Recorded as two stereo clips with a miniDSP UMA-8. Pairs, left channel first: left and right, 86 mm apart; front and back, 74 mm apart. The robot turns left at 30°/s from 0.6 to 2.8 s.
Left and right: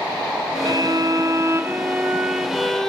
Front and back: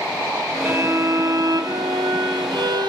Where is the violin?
120° right, 1.0 m; by 2.9 s 175° left, 1.0 m.